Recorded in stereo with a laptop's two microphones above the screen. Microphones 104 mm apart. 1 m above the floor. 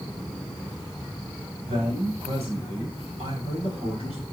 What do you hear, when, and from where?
1.6 s a man speaking: 85° right, 6.5 m; by 4.2 s 80° right, 8 m